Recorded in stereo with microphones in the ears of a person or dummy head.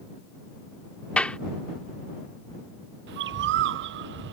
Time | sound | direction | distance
1.2 | a clap | 5° left (ahead or behind) | ?
3.1 | a bird | 60° right (ahead or behind) | ?